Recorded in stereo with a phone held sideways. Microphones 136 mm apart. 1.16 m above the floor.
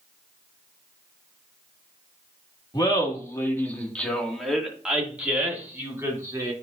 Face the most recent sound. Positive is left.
turn(degrees=-25)  # may be behind; listen again after turning